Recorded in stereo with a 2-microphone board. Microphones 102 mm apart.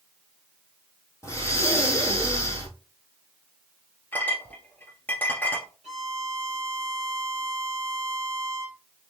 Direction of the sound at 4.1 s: 20° left (ahead or behind).